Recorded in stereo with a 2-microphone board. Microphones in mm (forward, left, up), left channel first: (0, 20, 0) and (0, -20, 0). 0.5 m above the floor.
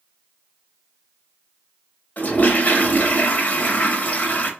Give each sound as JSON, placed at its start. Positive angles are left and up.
{"t": 2.2, "sound": "a toilet flushing", "side_deg": 40, "distance_m": 0.7}